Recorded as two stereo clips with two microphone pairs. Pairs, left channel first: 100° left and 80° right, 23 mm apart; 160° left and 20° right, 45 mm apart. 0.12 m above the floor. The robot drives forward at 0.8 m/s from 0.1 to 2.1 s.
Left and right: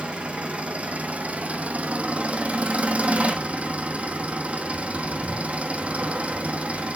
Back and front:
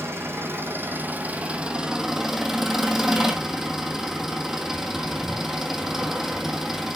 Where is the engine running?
40° right, 1.8 m; by 7.0 s 100° right, 1.3 m.